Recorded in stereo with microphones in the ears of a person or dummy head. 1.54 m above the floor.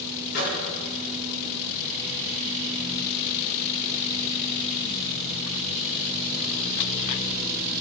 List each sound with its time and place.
0.3 s a microwave: 75° left (ahead or behind), 5 m